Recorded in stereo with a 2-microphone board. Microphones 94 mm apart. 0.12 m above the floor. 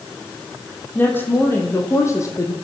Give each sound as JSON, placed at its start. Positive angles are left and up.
{"t": 0.9, "sound": "a woman speaking", "side_deg": 20, "distance_m": 5.0}